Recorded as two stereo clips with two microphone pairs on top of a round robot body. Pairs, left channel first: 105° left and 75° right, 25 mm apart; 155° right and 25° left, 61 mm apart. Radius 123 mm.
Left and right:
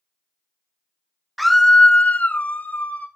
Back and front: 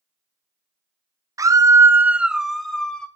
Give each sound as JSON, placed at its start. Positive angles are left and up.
{"t": 1.4, "sound": "a scream", "azimuth_deg": 10, "distance_m": 0.8}